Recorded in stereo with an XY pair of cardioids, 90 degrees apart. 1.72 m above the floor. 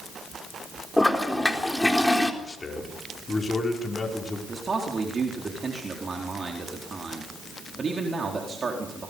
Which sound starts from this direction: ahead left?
A man speaking, at 2.4 s.